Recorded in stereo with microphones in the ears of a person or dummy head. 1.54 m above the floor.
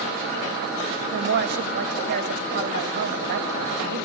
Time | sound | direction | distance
1.1 | a woman speaking | 55° right (ahead or behind) | 2 m